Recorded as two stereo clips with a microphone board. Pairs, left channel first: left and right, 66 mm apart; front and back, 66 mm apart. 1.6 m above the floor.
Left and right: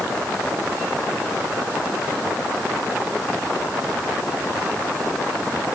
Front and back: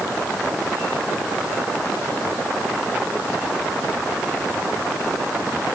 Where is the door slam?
No door slam in this recording.